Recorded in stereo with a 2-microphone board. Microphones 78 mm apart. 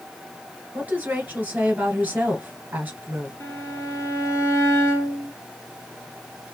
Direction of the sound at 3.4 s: 40° left (ahead or behind).